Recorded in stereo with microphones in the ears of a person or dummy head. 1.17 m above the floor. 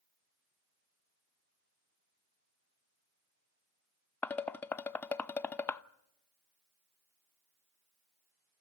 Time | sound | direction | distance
4.2 | dishes clattering | 15° left (ahead or behind) | 0.5 m